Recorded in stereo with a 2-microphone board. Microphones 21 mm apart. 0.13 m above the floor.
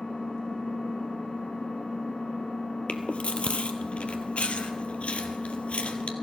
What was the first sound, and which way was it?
An engine running, 55° left (ahead or behind).